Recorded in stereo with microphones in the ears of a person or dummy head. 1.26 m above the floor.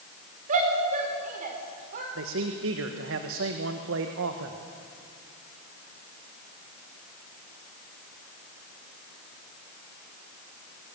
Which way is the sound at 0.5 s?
45° right (ahead or behind).